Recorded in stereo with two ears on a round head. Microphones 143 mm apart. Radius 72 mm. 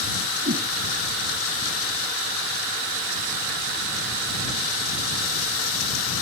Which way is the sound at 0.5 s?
60° right (ahead or behind).